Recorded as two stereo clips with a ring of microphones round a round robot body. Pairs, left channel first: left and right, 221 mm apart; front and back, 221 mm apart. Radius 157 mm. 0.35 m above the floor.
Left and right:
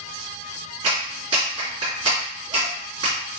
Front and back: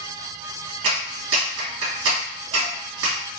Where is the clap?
165° right, 2 m.